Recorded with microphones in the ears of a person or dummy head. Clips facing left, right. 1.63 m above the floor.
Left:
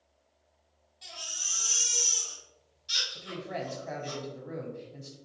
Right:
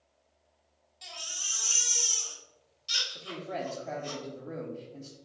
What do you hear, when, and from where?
1.0 s a baby crying: 40° right (ahead or behind), 1.3 m
3.1 s a woman speaking: 10° right (ahead or behind), 0.7 m